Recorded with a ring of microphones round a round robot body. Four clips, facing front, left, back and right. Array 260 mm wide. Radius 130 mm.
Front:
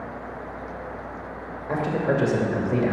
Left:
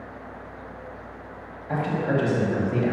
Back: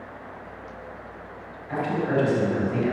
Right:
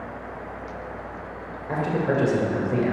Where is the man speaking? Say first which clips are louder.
Right 1 dB, front 1 dB; 30° right, 2 m.